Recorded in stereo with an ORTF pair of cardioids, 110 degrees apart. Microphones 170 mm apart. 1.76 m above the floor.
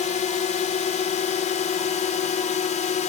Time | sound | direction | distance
0.0 | a drone | 45° left | ?